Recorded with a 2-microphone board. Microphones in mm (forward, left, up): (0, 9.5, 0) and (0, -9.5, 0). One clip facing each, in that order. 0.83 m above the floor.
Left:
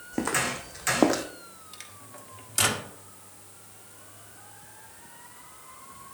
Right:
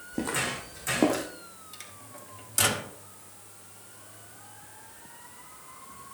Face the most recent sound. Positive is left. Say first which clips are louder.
# left 1 dB
turn(degrees=10)  # may be behind; listen again after turning